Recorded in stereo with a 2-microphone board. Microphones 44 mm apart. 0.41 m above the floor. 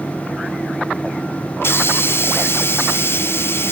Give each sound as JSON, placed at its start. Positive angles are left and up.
{"t": 1.6, "sound": "a hiss", "side_deg": 70, "distance_m": 0.8}